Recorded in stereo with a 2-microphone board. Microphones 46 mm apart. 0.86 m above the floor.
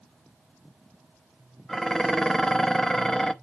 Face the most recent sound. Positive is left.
turn(degrees=15)  # may be behind; listen again after turning